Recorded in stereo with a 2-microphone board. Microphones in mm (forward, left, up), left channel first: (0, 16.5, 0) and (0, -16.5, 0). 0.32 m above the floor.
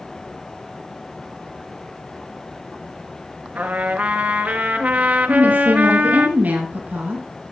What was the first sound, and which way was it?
A trumpet, 60° right (ahead or behind).